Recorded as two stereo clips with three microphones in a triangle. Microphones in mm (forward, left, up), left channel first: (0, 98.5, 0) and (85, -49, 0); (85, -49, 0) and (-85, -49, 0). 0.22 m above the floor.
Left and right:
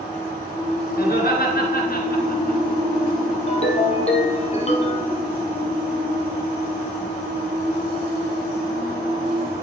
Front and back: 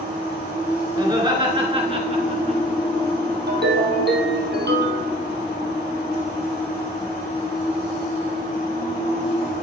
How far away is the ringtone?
About 2.5 m.